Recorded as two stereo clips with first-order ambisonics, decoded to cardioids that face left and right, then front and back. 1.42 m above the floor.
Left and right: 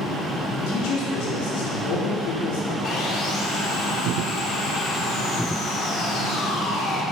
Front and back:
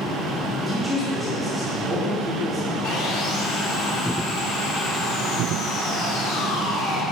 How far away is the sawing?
About 1.9 m.